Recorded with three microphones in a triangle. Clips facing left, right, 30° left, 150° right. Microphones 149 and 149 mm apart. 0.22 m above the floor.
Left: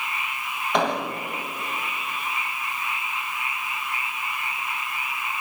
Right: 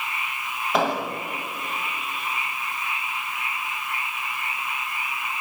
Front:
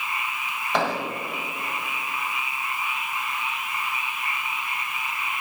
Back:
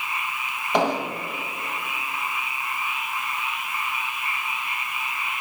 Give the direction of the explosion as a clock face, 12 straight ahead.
6 o'clock.